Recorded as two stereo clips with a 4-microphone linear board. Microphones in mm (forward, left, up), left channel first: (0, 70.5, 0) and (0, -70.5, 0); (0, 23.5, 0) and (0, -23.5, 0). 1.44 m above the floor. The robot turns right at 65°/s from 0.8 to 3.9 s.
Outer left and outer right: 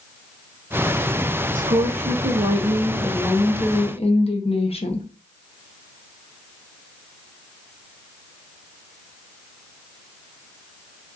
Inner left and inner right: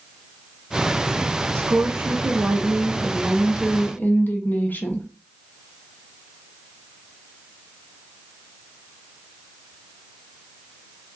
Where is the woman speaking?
105° right, 0.7 m; by 5.1 s 50° left, 0.7 m.